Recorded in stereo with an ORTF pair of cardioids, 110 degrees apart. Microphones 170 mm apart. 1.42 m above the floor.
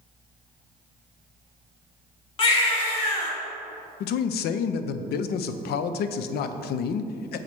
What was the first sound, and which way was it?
A baby crying, 35° left.